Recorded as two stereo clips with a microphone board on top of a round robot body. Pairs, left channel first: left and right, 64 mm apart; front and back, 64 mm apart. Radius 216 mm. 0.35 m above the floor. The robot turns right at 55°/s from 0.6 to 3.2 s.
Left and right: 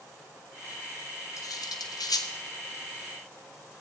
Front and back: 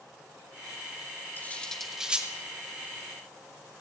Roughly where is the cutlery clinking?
Ahead left.